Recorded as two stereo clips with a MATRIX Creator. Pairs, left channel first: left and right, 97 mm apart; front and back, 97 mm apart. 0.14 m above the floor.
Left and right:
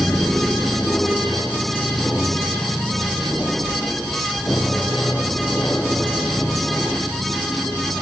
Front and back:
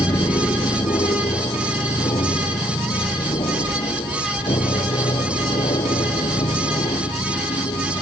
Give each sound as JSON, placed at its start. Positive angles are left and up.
{"t": 0.0, "sound": "an aircraft", "azimuth_deg": 20}